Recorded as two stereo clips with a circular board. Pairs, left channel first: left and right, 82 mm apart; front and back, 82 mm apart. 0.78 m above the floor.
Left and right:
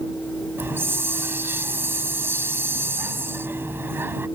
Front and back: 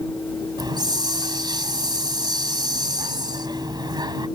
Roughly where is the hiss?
Behind right.